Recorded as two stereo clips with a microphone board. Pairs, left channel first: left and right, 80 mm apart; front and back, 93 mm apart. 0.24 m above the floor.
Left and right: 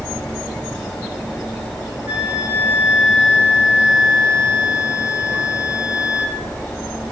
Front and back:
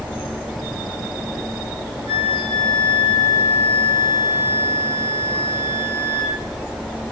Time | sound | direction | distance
2.1 | a flute | 20° right | 2.5 m